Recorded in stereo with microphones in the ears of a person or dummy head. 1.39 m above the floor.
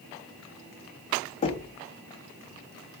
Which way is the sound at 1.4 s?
35° left (ahead or behind).